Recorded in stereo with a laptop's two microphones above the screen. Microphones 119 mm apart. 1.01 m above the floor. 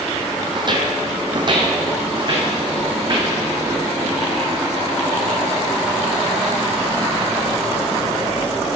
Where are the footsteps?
40° right (ahead or behind), 1.8 m; by 3.3 s 35° right (ahead or behind), 4.5 m.